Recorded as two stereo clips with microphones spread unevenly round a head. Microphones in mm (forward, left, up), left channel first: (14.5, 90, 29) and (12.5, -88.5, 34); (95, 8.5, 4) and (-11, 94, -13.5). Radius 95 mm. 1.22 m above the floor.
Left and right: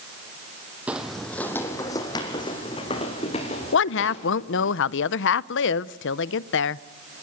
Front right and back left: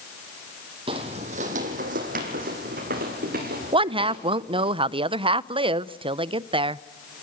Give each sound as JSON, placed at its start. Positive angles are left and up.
{"t": 0.9, "sound": "footsteps", "azimuth_deg": -170, "distance_m": 1.7}
{"t": 3.7, "sound": "a woman speaking", "azimuth_deg": 90, "distance_m": 0.6}